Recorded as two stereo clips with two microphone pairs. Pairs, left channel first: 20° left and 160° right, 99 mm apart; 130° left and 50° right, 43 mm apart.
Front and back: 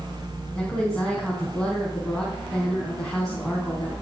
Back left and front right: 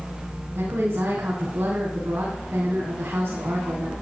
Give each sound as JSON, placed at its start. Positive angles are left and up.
{"t": 0.6, "sound": "a woman speaking", "azimuth_deg": -65, "distance_m": 3.5}